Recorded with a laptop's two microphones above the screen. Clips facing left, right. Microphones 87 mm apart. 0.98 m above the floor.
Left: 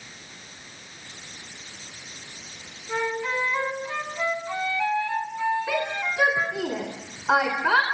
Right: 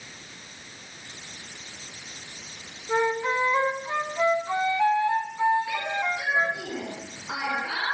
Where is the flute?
20° right (ahead or behind), 2.5 m.